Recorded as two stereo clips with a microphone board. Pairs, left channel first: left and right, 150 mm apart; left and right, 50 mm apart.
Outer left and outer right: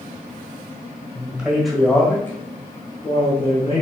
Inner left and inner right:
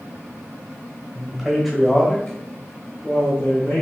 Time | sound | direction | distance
1.1 | a man speaking | 10° right (ahead or behind) | 1.3 m